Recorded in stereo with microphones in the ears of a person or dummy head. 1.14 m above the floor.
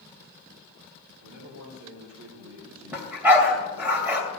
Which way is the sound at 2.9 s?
10° right (ahead or behind).